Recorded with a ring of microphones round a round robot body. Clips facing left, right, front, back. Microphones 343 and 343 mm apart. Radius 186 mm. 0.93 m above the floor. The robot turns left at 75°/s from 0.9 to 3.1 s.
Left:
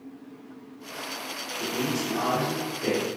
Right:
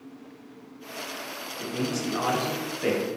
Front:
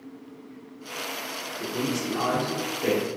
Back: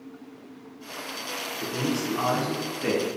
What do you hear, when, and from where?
1.6 s a man speaking: 20° right, 0.9 m; by 3.2 s 135° right, 0.9 m